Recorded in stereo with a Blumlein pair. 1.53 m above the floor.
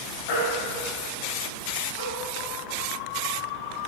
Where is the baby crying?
55° left, 4.5 m.